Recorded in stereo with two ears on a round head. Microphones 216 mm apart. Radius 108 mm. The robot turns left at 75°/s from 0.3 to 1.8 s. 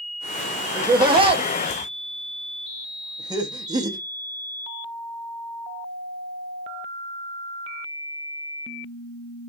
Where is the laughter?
20° right (ahead or behind), 0.6 m; by 4.0 s 15° right (ahead or behind), 0.6 m.